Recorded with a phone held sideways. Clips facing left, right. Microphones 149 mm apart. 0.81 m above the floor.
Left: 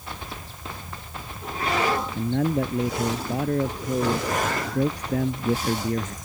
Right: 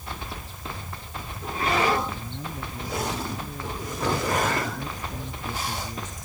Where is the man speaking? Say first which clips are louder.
Left 13 dB; 75° left (ahead or behind).